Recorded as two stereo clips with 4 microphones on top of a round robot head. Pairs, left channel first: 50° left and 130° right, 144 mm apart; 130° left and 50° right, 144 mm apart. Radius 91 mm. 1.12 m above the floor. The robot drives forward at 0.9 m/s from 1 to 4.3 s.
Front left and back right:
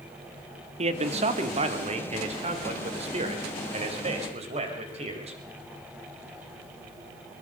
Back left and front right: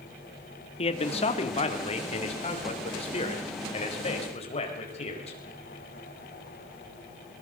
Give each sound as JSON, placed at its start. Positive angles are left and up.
{"t": 0.8, "sound": "a man speaking", "azimuth_deg": 180, "distance_m": 2.0}